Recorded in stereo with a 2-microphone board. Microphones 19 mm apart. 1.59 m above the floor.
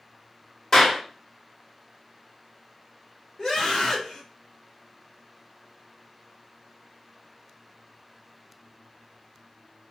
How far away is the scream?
About 0.6 m.